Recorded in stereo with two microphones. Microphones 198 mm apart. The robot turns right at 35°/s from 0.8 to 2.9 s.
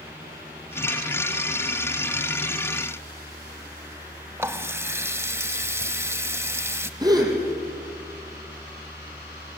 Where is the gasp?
20° right (ahead or behind), 4.5 m.